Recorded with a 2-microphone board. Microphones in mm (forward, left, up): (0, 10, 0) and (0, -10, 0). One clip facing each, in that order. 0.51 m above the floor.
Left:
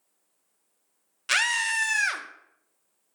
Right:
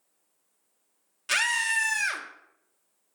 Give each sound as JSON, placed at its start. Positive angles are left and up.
{"t": 1.3, "sound": "a scream", "side_deg": 15, "distance_m": 0.7}